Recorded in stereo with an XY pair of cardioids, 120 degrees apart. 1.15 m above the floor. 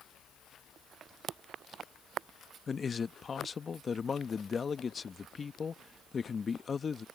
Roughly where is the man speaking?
Ahead left.